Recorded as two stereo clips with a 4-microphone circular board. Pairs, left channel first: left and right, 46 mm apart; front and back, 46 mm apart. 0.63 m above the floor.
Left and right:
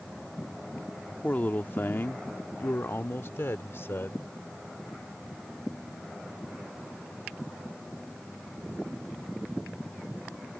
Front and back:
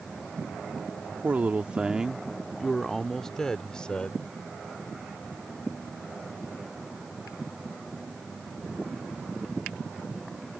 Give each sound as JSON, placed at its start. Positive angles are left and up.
{"t": 1.2, "sound": "a man speaking", "azimuth_deg": 135}